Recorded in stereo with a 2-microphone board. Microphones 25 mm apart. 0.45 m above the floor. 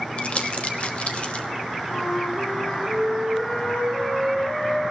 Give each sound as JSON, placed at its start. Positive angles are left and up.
{"t": 0.2, "sound": "crumpling", "side_deg": 50, "distance_m": 1.2}
{"t": 1.9, "sound": "a flute", "side_deg": 70, "distance_m": 4.5}